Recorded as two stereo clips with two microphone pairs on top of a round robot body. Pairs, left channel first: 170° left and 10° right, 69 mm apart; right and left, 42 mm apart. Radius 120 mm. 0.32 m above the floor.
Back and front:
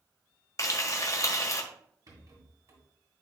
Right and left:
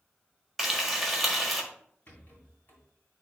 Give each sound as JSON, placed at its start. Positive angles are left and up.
{"t": 0.6, "sound": "frying", "azimuth_deg": 175, "distance_m": 1.6}
{"t": 2.1, "sound": "a rattle", "azimuth_deg": -45, "distance_m": 2.5}